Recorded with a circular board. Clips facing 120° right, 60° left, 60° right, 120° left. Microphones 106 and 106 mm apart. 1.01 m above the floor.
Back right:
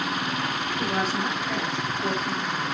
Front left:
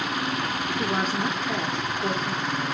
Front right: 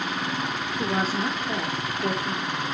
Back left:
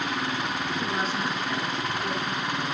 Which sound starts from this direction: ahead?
A woman speaking, at 0.8 s.